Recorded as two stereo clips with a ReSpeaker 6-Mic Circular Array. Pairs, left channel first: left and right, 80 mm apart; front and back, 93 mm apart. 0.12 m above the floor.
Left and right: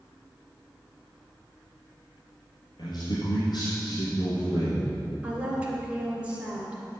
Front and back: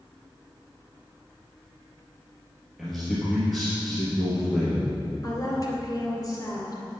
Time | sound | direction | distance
2.8 | a man speaking | 90° left | 3 m
5.2 | a woman speaking | 20° right | 1.9 m